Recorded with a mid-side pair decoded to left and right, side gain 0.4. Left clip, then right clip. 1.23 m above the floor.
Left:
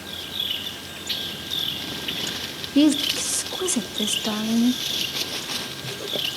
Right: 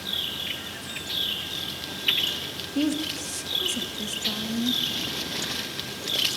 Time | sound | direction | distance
2.8 | a woman speaking | 65° left | 1.5 m